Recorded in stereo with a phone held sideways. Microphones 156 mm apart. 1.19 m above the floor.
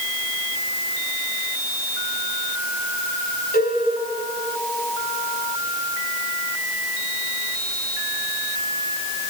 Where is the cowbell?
80° left, 5 m.